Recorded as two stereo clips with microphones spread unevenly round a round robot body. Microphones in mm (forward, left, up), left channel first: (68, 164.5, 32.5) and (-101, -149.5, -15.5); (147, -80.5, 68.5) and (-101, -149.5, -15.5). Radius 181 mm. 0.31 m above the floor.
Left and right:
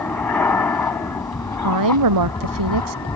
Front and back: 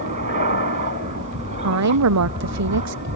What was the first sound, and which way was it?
An aircraft, 145° left.